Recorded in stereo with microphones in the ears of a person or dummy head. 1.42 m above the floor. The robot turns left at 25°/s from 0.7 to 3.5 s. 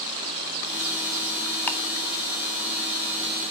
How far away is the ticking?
About 1.8 m.